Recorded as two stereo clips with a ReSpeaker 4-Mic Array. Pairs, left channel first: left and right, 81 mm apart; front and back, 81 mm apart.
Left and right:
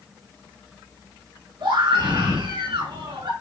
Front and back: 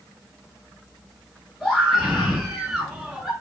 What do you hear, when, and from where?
1.6 s a scream: 85° right, 5.5 m; by 3.3 s 100° right, 6 m